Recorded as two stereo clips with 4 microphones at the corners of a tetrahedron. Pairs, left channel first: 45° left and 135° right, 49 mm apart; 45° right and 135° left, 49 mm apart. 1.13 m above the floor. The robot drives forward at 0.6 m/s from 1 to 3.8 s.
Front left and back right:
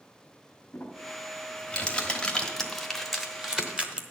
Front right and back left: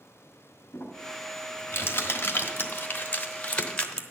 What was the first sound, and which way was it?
Crumpling, 15° right.